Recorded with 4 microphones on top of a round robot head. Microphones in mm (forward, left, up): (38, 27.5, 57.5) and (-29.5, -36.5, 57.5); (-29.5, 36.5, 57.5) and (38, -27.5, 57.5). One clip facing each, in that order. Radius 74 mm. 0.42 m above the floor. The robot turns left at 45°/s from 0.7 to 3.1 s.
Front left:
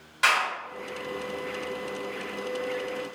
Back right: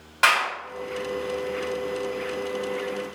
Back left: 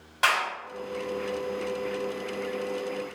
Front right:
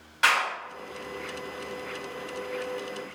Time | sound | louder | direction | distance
0.2 | a clap | back right 3 dB, front right 1 dB | 170° right | 1.9 m